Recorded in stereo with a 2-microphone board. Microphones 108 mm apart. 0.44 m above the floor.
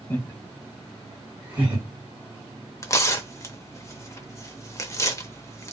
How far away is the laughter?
About 1.2 m.